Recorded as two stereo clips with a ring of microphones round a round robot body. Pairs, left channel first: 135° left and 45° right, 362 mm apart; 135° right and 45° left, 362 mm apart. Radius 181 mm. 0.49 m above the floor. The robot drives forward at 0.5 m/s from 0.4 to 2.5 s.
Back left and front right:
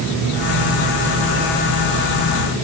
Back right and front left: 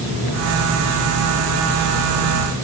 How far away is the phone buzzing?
I don't hear a phone buzzing.